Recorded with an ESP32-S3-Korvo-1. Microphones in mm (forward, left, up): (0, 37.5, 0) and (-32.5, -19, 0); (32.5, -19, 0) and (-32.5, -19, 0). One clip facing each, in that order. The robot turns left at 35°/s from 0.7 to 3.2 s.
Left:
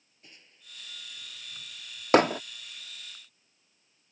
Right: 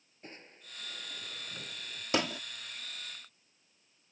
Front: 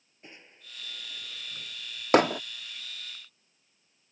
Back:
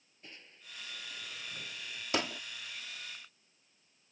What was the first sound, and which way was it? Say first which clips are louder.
Crushing: right 6 dB, front 3 dB; 70° right.